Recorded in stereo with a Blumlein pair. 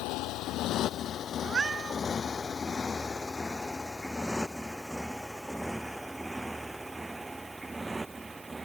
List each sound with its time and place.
0.0 s a motorcycle: 40° left; by 8.7 s 10° right
1.4 s a cat meowing: 20° right